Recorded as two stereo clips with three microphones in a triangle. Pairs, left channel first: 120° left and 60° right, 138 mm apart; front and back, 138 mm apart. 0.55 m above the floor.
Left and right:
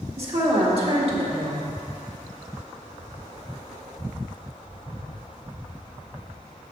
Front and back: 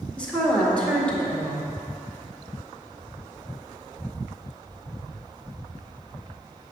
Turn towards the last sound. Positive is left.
turn(degrees=-80)